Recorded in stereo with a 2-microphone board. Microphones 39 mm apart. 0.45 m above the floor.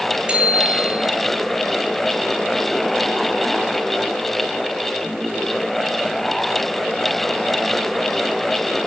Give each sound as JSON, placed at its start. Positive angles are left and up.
{"t": 0.3, "sound": "a bicycle bell", "side_deg": -25, "distance_m": 6.0}